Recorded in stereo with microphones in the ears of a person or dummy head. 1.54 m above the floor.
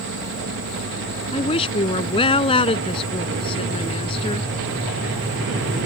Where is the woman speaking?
35° left (ahead or behind).